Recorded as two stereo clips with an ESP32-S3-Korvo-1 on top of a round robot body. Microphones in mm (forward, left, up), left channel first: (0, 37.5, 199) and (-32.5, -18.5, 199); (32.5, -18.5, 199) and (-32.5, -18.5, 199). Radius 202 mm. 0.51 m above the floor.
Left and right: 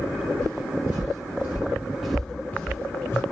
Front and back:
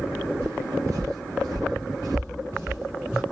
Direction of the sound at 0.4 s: 125° right.